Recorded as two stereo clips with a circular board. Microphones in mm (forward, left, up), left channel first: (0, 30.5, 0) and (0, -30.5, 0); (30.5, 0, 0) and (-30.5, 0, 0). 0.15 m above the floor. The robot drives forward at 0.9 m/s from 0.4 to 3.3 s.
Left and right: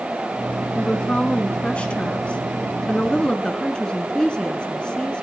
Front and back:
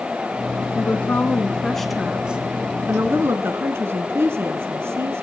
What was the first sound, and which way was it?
A woman speaking, 25° left.